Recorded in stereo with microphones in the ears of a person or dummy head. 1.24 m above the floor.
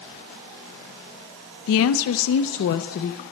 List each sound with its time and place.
1.7 s a woman speaking: 70° left (ahead or behind), 0.7 m; by 3.2 s 40° left (ahead or behind), 1.0 m